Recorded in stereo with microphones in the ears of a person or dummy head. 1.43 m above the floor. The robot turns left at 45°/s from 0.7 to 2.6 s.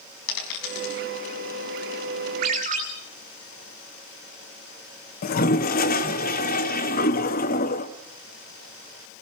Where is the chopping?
No chopping in this recording.